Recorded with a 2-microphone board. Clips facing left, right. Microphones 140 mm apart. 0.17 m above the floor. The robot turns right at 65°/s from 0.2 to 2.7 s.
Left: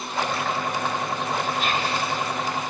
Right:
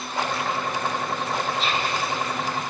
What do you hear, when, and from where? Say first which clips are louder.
1.6 s whispering: left 1 dB; 50° left (ahead or behind), 2.0 m; by 2.0 s 30° left (ahead or behind), 2.0 m